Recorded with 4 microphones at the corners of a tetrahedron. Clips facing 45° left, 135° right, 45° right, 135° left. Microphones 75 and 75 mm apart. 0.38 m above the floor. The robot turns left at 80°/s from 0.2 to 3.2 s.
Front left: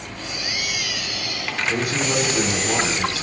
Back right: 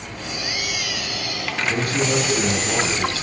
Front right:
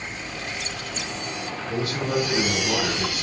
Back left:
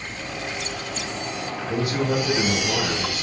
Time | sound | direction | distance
1.7 | a man speaking | 130° left | 0.9 m